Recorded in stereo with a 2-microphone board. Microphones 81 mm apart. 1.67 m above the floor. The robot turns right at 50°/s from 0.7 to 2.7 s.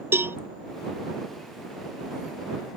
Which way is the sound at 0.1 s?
30° right (ahead or behind).